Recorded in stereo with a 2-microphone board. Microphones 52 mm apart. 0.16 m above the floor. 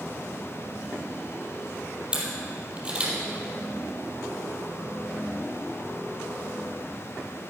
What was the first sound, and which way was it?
A camera shutter, 20° right (ahead or behind).